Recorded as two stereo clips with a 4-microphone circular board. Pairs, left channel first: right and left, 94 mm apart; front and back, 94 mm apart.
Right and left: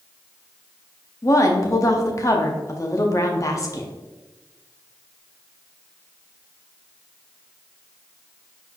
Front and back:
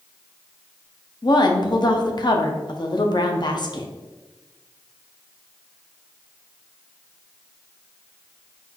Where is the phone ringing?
No phone ringing in this recording.